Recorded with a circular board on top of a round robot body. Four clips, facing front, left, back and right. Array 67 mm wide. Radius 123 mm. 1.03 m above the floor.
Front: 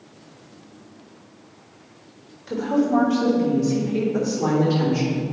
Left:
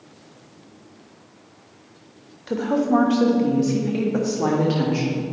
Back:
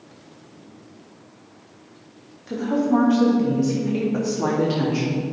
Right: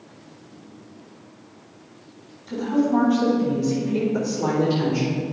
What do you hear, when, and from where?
2.5 s a woman speaking: 85° left, 1.6 m; by 5.2 s 135° left, 2.5 m